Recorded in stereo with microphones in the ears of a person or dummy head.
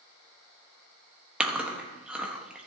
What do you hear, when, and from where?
1.4 s chewing: 5° right (ahead or behind), 1.4 m